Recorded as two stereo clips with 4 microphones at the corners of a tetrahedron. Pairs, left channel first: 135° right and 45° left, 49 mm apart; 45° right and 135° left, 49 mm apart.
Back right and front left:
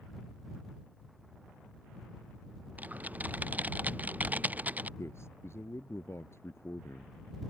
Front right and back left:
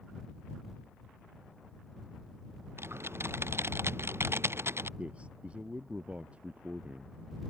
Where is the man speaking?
160° right.